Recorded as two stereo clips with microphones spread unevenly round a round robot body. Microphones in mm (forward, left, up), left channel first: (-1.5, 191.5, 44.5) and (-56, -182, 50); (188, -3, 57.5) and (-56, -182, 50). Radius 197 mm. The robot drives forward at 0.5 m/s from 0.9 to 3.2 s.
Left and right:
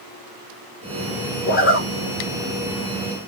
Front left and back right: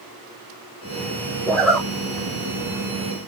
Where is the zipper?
115° left, 1.0 m; by 1.9 s 130° left, 1.1 m.